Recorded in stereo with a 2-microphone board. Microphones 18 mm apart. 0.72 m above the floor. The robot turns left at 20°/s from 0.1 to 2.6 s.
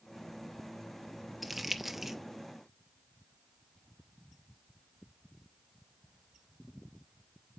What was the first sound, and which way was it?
Crumpling, 5° right (ahead or behind).